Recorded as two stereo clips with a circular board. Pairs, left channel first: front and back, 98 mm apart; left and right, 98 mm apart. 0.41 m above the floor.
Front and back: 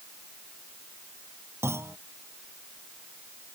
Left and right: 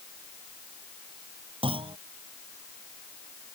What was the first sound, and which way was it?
A clunk, 115° right.